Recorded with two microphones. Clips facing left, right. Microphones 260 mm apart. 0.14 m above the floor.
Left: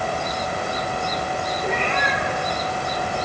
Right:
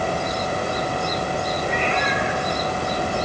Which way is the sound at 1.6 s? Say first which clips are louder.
Right 1 dB; 65° left (ahead or behind).